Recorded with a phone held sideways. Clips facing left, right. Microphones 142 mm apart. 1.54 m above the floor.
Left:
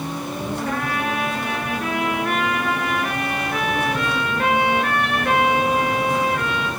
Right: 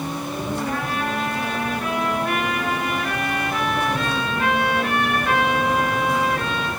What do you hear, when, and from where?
0.7 s a trumpet: 55° left (ahead or behind), 9.5 m